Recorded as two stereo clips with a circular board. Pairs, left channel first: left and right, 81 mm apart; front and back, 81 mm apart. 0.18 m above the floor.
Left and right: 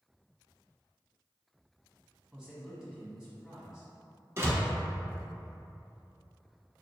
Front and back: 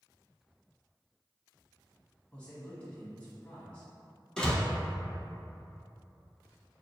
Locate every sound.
2.3 s a man speaking: 25° right, 1.2 m
4.4 s a door slam: 75° right, 0.8 m